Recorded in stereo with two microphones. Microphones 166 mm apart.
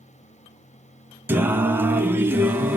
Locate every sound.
1.3 s singing: 15° right (ahead or behind), 0.9 m